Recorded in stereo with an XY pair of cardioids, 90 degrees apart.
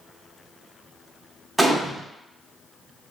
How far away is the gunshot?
About 0.8 m.